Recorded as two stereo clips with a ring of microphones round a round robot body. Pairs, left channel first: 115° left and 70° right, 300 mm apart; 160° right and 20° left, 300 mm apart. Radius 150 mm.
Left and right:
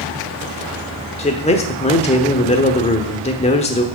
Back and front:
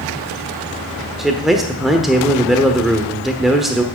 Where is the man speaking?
110° left, 1.1 m.